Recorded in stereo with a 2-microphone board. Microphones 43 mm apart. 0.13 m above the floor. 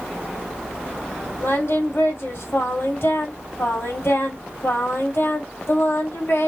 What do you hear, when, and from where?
1.4 s singing: 60° left (ahead or behind), 2 m